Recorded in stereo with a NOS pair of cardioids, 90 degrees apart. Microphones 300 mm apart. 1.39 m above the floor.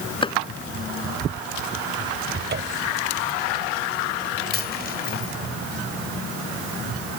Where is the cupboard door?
35° right.